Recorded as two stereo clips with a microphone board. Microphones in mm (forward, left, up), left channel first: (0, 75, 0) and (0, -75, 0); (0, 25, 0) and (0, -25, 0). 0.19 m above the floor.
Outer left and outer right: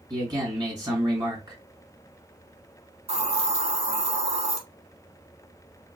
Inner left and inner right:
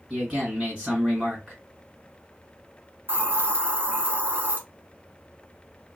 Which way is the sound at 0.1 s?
30° right (ahead or behind).